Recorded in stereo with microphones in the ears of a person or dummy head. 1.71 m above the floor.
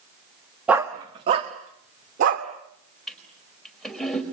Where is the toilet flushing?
Centre (ahead or behind), 4.5 m.